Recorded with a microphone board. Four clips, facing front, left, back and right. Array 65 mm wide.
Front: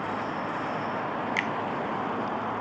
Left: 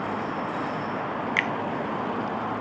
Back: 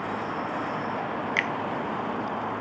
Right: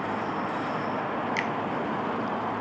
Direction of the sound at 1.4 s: 125° left.